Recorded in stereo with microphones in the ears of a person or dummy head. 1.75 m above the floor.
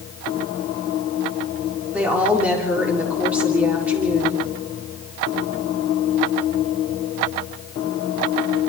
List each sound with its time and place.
1.9 s a woman speaking: 10° right (ahead or behind), 4.5 m